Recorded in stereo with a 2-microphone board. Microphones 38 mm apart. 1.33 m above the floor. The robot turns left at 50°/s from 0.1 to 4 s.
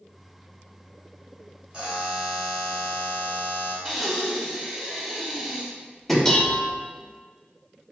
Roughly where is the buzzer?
Behind right.